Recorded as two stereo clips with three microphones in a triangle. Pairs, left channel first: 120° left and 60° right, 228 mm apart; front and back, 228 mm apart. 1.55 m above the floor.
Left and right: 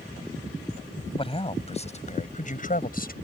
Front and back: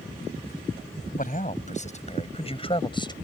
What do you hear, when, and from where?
1.2 s a man speaking: 55° left; by 3.1 s 70° left